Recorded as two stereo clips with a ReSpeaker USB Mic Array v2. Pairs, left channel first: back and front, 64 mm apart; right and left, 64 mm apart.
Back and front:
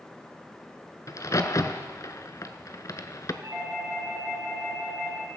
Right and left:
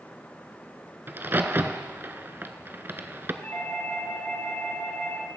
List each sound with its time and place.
1.1 s a crack: 150° left, 0.8 m
3.4 s a doorbell: 40° right, 6.5 m